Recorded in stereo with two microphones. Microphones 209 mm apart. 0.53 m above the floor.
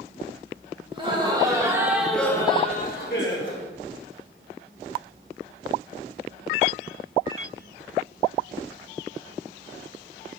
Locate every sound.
0.9 s laughter: 25° right (ahead or behind), 2.5 m; by 3.6 s 60° left (ahead or behind), 1.6 m